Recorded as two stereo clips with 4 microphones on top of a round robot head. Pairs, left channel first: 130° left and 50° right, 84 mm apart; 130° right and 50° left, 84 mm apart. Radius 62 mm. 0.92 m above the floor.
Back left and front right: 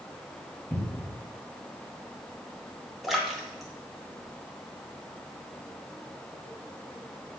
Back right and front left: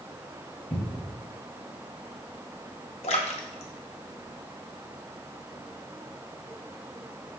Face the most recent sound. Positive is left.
turn(degrees=-140)